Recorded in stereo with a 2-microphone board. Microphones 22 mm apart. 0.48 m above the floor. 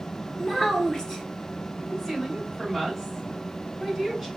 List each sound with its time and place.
0.4 s a child speaking: 25° left (ahead or behind), 0.9 m
1.9 s a woman speaking: centre (ahead or behind), 2.5 m